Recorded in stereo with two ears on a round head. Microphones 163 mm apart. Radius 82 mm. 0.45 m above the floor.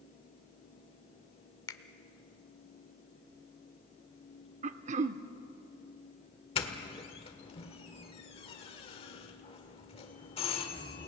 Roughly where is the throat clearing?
Right.